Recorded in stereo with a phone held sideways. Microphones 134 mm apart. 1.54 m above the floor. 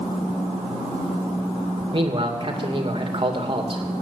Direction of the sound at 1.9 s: 40° right (ahead or behind).